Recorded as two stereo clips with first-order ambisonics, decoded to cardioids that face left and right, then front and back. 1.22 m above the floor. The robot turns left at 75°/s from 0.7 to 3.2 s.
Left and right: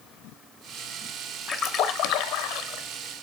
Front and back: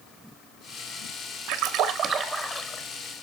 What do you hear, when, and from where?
1.5 s a splash: 150° left, 1.1 m; by 2.8 s 50° left, 1.1 m